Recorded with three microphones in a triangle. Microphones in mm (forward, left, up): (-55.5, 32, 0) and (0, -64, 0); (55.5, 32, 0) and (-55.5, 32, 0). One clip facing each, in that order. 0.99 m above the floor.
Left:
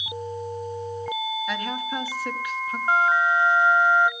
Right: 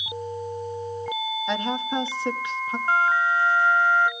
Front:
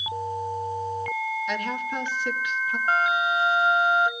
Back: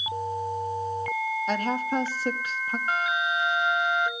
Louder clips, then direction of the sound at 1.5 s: Right 3 dB, back 3 dB; 125° right.